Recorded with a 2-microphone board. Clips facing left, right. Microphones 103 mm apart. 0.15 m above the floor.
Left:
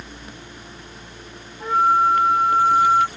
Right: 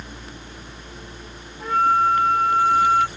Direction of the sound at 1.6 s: 10° left (ahead or behind).